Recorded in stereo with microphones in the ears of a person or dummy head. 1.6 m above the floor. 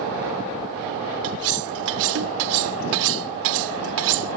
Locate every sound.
1.2 s cutlery clinking: 75° right (ahead or behind)